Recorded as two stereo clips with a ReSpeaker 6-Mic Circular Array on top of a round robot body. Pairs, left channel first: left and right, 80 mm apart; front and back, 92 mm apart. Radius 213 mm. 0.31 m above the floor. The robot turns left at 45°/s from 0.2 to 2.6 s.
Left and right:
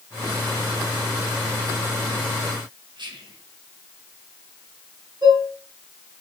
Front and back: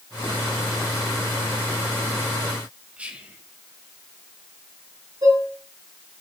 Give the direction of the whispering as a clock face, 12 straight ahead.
3 o'clock.